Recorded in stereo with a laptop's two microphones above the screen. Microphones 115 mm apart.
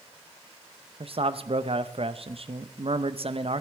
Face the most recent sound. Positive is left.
turn(degrees=-55)  # may be behind; listen again after turning